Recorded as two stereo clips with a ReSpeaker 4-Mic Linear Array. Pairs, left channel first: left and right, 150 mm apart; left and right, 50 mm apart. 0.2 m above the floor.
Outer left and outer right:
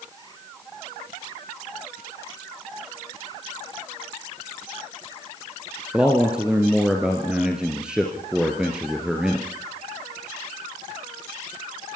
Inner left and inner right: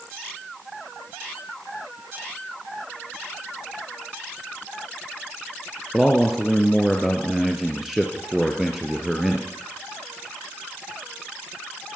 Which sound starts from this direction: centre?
A man speaking, at 5.9 s.